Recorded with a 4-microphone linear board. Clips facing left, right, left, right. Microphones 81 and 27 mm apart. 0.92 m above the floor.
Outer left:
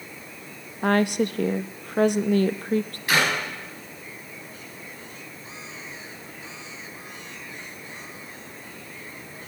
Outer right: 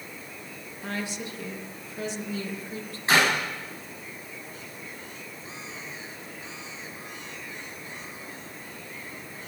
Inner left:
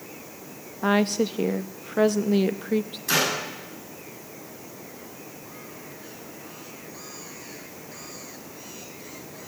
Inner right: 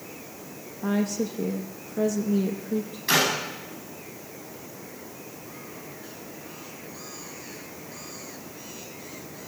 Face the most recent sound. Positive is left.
turn(degrees=-30)  # may be behind; listen again after turning